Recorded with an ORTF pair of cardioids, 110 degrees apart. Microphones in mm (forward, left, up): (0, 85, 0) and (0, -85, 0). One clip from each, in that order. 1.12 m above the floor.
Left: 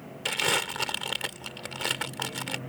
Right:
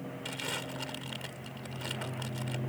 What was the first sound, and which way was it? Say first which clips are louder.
Crumpling: left 12 dB; 65° left.